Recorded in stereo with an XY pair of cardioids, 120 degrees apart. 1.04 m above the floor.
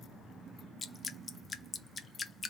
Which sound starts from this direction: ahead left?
Dripping, at 0.8 s.